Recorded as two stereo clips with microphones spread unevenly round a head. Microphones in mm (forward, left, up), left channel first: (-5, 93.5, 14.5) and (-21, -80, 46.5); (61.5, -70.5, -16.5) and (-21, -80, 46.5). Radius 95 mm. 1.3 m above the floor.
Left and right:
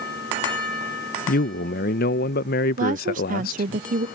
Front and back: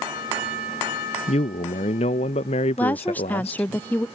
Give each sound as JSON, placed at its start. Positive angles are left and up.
{"t": 1.3, "sound": "a man speaking", "azimuth_deg": 40}
{"t": 2.8, "sound": "a woman speaking", "azimuth_deg": -45}